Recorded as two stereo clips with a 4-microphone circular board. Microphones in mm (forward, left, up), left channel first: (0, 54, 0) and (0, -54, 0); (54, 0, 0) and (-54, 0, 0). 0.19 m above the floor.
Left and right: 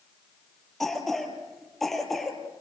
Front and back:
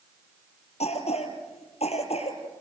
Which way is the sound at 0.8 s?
Straight ahead.